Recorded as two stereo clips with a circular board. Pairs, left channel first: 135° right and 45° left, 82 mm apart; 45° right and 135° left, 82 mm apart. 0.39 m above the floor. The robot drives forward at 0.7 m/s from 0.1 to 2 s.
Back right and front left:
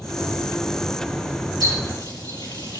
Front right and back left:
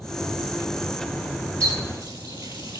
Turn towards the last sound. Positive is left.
turn(degrees=-170)